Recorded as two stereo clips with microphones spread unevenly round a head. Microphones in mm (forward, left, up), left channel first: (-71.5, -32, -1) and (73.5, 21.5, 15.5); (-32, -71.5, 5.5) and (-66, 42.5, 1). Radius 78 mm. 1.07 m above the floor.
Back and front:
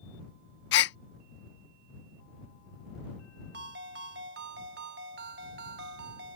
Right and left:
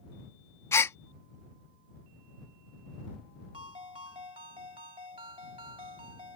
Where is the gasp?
140° right.